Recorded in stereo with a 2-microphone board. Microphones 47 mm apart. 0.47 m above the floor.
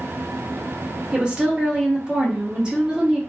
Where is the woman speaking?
20° right (ahead or behind), 0.7 m.